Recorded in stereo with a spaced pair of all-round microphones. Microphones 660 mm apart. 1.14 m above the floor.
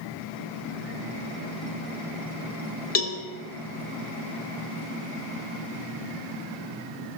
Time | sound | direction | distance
3.0 | a cowbell | 65° left (ahead or behind) | 1.4 m